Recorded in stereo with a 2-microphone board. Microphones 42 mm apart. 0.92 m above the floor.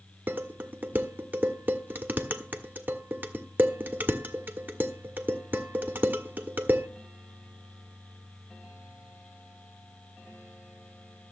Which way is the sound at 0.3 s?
45° right (ahead or behind).